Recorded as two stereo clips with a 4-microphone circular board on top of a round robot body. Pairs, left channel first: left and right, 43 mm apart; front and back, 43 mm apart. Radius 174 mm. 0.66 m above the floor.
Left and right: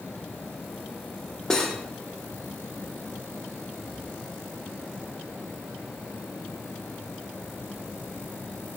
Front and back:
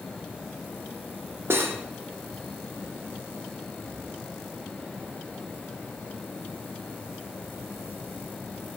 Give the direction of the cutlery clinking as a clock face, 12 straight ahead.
6 o'clock.